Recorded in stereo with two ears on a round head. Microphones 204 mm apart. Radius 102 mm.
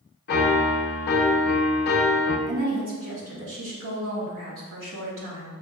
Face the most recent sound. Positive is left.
turn(degrees=-60)  # may be behind; listen again after turning